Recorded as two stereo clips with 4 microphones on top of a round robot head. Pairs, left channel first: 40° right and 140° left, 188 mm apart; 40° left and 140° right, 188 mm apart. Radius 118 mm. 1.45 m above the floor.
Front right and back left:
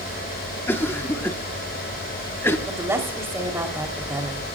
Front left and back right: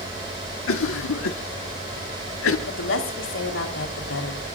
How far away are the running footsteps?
I don't hear running footsteps.